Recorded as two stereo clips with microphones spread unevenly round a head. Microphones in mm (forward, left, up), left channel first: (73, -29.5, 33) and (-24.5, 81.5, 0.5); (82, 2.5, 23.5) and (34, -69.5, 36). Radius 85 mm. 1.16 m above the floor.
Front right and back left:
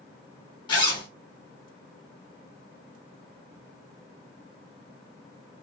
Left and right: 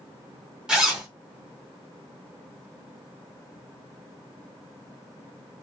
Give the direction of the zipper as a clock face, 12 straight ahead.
2 o'clock.